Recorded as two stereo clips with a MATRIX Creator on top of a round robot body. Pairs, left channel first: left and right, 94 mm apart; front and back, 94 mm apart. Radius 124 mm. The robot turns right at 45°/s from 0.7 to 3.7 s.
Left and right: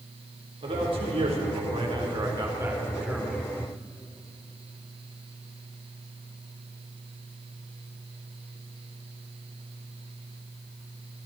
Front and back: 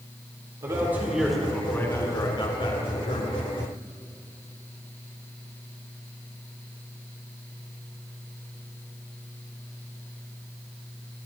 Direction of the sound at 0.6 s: 120° right.